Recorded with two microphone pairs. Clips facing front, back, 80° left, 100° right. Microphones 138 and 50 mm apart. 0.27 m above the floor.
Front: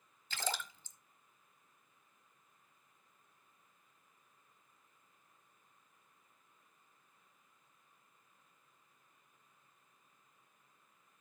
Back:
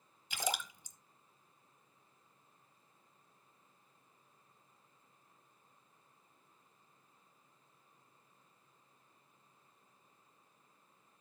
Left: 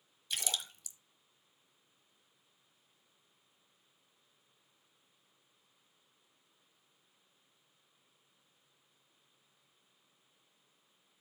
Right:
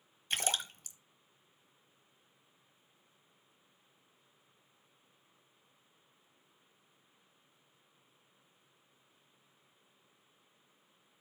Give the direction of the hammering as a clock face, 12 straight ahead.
I don't hear hammering.